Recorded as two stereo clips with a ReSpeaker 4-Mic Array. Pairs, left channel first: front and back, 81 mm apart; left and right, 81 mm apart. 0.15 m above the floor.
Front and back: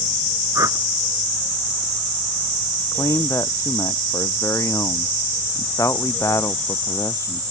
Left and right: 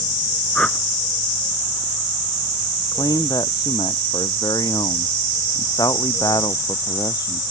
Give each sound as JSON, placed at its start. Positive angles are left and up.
{"t": 0.6, "sound": "a whoosh", "azimuth_deg": 160}
{"t": 2.9, "sound": "a man speaking", "azimuth_deg": 50}